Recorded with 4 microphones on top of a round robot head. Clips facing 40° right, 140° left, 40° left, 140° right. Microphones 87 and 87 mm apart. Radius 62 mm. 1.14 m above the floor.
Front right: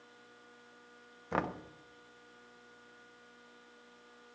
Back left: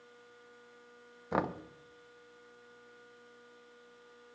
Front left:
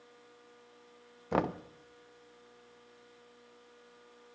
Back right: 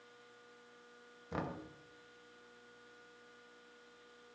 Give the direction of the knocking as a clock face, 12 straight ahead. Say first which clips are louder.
Back left 2 dB, front left 10 dB; 10 o'clock.